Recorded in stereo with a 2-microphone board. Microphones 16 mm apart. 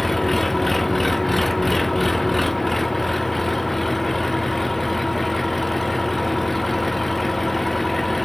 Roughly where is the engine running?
Centre.